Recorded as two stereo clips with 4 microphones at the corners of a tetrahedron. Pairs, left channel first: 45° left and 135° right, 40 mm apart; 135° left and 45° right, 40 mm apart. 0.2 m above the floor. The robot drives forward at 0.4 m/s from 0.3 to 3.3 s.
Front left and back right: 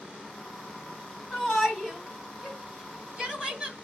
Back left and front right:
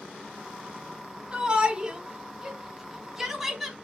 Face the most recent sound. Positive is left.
turn(degrees=-105)